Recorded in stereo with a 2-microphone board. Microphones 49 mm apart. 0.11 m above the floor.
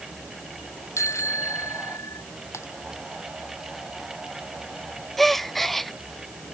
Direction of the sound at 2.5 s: 60° left (ahead or behind).